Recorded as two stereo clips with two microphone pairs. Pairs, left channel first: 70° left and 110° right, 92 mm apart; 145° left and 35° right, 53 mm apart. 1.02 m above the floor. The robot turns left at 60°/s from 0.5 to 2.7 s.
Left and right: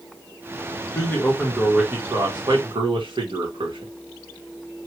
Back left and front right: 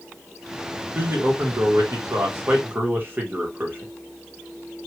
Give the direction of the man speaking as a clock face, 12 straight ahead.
11 o'clock.